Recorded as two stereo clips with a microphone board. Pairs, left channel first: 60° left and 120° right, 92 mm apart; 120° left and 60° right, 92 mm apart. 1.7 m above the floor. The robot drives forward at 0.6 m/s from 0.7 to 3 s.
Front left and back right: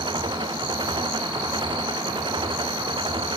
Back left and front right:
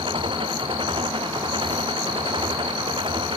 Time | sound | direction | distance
0.0 | an engine running | 85° right | ?